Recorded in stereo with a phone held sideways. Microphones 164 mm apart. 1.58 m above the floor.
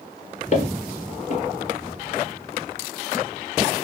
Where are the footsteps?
45° left (ahead or behind), 2 m.